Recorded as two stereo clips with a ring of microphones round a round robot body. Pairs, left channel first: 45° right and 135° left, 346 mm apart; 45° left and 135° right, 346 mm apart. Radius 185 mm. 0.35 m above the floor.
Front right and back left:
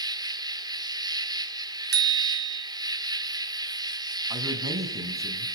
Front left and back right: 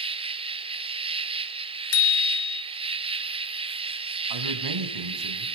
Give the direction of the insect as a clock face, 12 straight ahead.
6 o'clock.